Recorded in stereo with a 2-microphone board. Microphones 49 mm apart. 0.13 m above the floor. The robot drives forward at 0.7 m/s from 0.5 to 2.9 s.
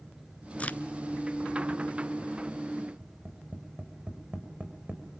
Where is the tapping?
30° right (ahead or behind), 4.5 m.